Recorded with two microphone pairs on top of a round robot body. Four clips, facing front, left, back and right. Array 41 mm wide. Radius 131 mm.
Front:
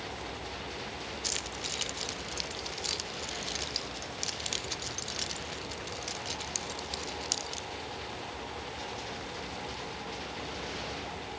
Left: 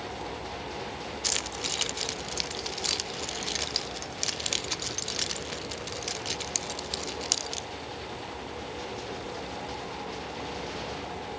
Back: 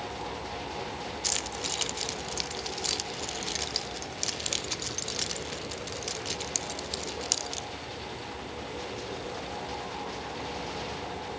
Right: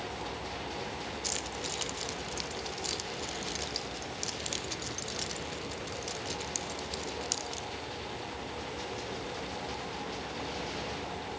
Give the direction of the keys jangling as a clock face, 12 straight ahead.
8 o'clock.